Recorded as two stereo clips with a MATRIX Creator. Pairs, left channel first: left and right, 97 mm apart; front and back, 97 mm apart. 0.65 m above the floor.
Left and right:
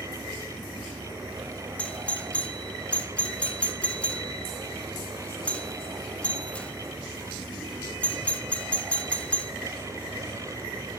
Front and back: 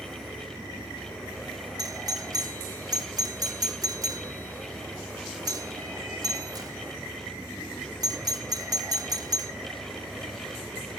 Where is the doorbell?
160° left, 1.2 m.